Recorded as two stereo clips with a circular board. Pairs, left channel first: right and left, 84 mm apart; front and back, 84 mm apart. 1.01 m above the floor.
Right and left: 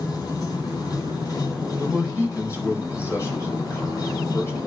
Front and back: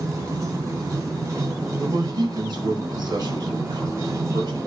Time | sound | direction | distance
0.0 | running water | 130° right | 3.5 m
1.8 | a man speaking | 145° right | 4.5 m